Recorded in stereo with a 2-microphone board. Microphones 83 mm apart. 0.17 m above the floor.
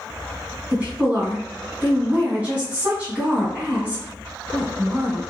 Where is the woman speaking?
15° right (ahead or behind), 1.3 m.